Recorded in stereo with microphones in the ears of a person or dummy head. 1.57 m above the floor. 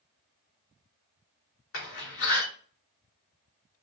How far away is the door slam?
About 2.5 m.